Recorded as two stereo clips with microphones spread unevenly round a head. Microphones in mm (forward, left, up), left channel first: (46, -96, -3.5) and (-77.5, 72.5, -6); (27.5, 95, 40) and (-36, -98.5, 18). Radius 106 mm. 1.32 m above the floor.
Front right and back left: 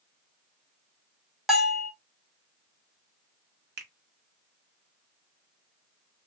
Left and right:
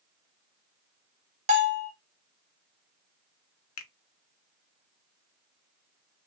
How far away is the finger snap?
About 0.6 m.